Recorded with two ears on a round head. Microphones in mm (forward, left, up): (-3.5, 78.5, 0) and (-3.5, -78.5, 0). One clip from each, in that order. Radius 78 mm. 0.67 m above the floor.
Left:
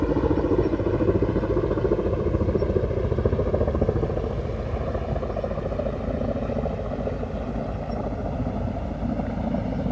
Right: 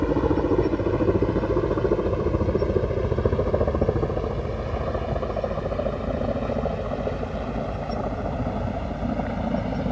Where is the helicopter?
15° right (ahead or behind); by 9.9 s 40° right (ahead or behind).